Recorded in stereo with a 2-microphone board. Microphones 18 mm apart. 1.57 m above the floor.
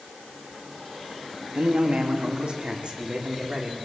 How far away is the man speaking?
About 3 m.